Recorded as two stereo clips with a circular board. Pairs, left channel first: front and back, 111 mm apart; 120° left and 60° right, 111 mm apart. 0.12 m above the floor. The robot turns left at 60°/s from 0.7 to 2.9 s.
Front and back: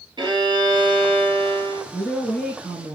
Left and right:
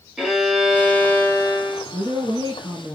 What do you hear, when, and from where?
0.2 s a violin: 145° right, 1.2 m; by 1.8 s 150° left, 1.2 m
1.9 s a woman speaking: 60° right, 2.0 m; by 2.9 s 120° right, 2.0 m